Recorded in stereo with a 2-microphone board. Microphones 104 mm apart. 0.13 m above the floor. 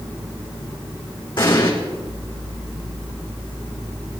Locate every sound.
1.4 s an explosion: 50° left (ahead or behind), 5 m